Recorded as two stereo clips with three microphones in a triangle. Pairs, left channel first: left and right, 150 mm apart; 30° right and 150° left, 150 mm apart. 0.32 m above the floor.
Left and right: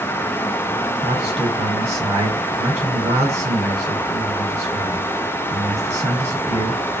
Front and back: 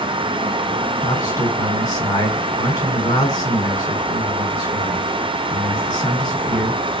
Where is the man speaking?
85° right, 1.6 m.